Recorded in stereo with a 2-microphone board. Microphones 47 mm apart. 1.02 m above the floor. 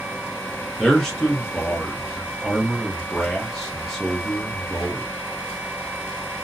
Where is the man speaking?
10° left (ahead or behind), 0.9 m.